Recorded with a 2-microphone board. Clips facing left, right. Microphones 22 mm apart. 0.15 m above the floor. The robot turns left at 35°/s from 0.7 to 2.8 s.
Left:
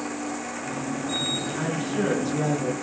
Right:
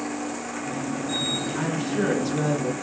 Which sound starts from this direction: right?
A woman speaking, at 1.6 s.